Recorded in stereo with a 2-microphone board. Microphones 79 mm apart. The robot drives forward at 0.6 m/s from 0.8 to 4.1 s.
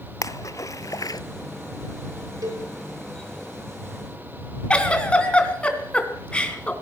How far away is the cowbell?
About 6 m.